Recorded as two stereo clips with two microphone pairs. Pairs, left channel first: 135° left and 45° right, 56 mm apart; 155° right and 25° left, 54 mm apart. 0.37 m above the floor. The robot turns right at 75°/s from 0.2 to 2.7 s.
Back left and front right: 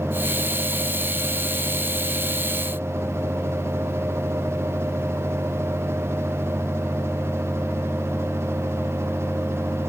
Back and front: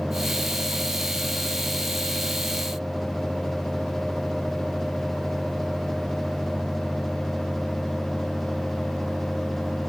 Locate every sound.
Only background noise.